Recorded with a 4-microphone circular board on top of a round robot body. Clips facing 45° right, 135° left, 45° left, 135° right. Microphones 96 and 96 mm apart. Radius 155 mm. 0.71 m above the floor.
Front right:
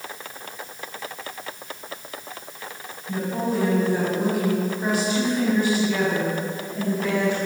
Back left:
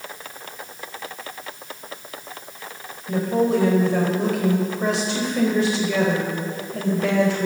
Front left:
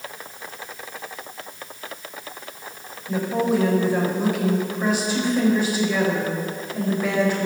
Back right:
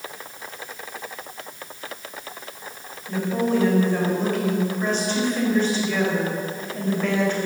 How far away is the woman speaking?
About 4.5 m.